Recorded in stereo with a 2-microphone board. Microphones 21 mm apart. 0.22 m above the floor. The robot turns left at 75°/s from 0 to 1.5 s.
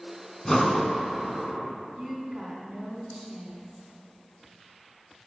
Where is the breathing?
25° left, 1.4 m; by 0.9 s 10° right, 1.4 m.